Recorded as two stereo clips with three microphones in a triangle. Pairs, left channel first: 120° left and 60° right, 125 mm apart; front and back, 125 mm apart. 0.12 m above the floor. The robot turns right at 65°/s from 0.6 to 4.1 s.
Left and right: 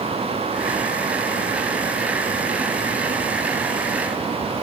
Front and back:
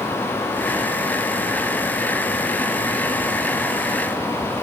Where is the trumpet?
No trumpet in this recording.